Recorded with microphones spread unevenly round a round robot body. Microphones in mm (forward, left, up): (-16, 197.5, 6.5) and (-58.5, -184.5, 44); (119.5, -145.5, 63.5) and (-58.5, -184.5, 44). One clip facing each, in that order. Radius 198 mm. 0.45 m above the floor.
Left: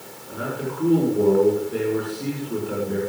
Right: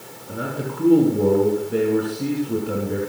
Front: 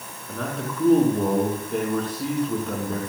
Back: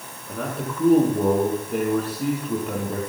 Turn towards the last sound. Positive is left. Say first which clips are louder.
# right 1 dB, back 1 dB
turn(degrees=-85)